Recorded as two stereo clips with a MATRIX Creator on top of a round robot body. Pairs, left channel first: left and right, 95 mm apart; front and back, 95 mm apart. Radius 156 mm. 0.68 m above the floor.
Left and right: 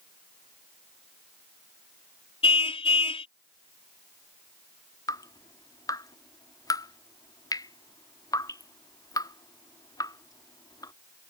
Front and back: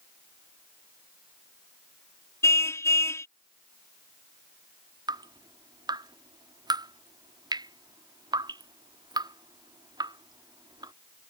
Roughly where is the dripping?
Behind left.